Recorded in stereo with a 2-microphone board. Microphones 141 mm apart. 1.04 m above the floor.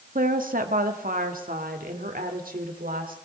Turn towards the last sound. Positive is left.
turn(degrees=-90)